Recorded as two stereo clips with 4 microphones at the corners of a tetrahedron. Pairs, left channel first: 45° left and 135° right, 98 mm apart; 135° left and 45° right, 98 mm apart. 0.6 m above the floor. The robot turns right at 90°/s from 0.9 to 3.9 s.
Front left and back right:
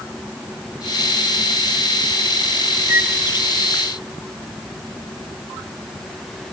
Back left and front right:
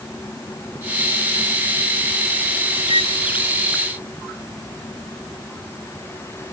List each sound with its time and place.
2.9 s a violin: 70° right; by 3.2 s 40° right